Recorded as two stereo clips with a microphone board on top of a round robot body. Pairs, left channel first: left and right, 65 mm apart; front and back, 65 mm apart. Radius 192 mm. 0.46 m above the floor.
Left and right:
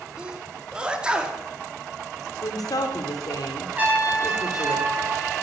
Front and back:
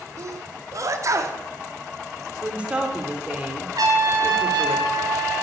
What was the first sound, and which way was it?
A sneeze, 160° right.